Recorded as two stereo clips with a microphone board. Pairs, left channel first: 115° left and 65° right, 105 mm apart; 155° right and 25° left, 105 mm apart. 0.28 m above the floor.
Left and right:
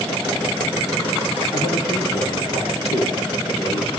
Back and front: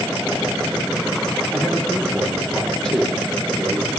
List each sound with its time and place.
1.5 s a man speaking: 120° left, 5.5 m